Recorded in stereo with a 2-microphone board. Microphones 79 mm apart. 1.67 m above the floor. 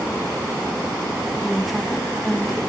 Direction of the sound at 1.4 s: Centre (ahead or behind).